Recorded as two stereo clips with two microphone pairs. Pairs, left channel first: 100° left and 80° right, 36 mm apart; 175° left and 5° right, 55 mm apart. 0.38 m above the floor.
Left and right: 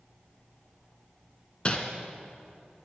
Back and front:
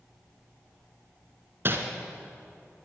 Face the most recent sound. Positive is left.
turn(degrees=40)